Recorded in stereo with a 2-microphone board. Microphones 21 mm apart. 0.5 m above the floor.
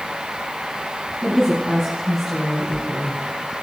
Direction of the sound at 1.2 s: 30° right (ahead or behind).